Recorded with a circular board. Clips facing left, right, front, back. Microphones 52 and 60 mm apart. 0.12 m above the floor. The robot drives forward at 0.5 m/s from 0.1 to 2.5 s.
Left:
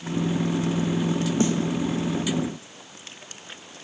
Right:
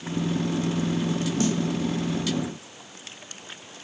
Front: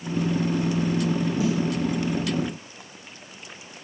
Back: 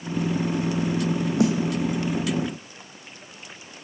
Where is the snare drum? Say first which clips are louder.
Left 2 dB, back 6 dB; 155° left, 1.1 m.